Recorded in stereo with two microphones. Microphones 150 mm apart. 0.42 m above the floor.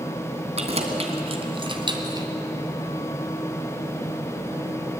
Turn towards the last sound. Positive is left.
turn(degrees=-25)  # may be behind; listen again after turning